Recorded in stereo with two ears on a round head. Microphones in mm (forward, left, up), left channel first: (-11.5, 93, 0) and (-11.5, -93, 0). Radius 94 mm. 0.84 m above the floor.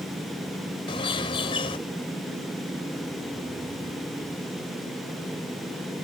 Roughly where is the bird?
Left.